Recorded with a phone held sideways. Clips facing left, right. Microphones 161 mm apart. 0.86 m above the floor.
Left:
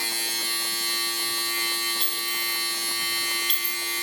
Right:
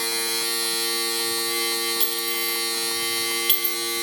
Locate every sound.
0.0 s a machine running: 75° right (ahead or behind), 8 m
2.0 s a clink: 80° right, 2 m